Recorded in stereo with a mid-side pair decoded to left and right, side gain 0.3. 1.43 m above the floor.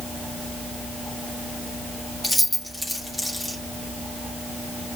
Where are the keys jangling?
10° left, 2 m.